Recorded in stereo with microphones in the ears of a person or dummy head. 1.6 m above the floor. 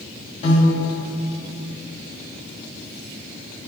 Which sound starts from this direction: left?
A piano, at 0.4 s.